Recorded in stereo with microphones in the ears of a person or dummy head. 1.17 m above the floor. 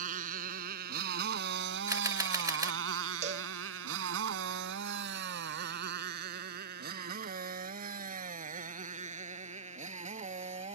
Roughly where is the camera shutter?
Centre.